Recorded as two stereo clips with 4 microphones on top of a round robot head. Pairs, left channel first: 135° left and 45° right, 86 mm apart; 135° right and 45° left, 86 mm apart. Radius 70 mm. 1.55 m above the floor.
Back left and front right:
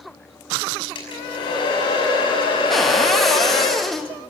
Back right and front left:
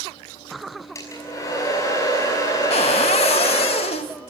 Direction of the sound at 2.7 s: 140° right.